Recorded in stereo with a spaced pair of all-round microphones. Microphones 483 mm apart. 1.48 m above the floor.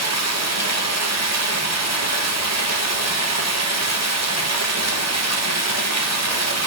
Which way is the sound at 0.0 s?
35° right (ahead or behind).